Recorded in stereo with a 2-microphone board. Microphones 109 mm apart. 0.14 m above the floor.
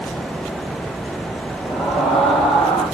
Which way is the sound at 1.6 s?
55° left (ahead or behind).